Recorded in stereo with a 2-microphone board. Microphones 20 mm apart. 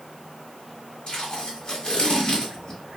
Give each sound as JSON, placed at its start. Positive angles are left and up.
{"t": 1.1, "sound": "tape being pulled", "side_deg": 30, "distance_m": 1.9}